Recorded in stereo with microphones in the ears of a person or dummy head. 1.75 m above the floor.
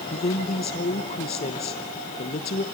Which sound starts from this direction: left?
A woman speaking, at 0.1 s.